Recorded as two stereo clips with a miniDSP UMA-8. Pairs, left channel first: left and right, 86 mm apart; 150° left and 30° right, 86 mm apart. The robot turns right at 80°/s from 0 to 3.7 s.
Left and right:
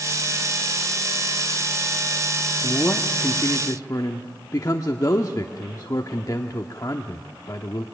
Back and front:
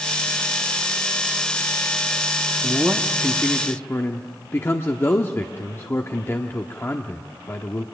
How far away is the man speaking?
About 1.0 m.